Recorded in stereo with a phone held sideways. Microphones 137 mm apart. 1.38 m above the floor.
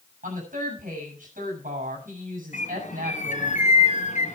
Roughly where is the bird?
Left.